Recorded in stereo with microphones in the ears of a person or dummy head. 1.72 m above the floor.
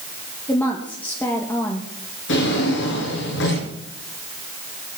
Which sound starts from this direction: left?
A drawer, at 2.3 s.